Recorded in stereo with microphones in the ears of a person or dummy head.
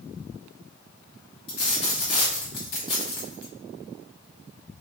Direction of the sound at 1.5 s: 25° left (ahead or behind).